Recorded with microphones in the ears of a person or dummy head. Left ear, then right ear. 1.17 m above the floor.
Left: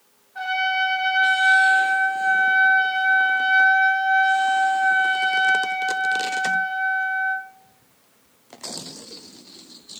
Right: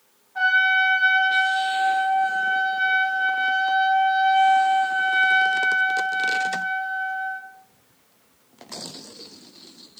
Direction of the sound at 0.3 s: 25° right (ahead or behind).